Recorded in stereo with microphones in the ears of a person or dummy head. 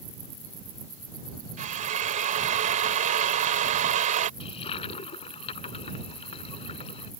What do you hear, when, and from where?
1.6 s a drill: 45° right (ahead or behind)
4.4 s a toilet flushing: 40° left (ahead or behind)